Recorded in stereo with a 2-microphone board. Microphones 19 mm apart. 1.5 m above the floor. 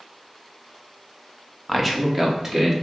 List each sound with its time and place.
1.7 s a man speaking: 10° left (ahead or behind), 0.6 m; by 2.7 s 20° right (ahead or behind), 1.2 m